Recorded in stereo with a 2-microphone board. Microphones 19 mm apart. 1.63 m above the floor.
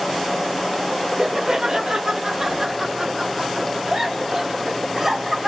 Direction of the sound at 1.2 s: 35° right (ahead or behind).